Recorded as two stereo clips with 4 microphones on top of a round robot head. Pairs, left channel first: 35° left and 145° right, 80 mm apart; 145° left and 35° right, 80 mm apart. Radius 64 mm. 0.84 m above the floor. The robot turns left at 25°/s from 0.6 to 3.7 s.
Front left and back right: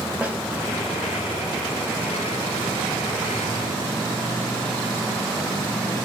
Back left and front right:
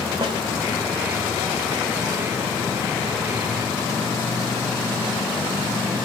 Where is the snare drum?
70° right, 3 m.